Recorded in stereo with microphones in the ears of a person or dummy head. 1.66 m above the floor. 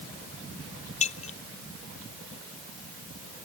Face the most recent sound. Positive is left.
turn(degrees=35)  # may be behind; listen again after turning